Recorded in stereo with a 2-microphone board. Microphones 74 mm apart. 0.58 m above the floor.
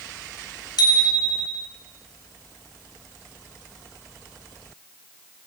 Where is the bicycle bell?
65° left (ahead or behind), 4.5 m.